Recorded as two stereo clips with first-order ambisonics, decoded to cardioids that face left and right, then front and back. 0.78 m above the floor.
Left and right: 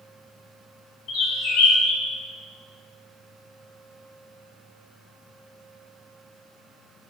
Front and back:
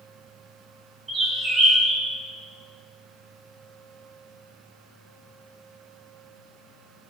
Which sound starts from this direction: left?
A bird, at 1.1 s.